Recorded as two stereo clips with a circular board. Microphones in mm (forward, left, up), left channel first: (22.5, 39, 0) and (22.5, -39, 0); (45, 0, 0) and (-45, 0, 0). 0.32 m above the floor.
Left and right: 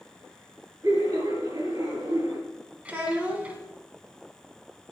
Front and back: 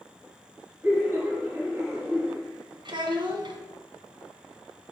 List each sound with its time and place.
0.8 s laughter: 115° right, 3.5 m
2.9 s a child speaking: 160° right, 1.6 m